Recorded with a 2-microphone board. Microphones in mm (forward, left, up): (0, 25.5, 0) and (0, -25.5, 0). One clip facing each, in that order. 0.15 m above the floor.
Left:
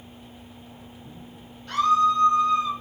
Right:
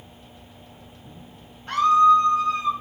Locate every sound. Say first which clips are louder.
1.7 s a scream: right 4 dB; 30° right (ahead or behind), 4.5 m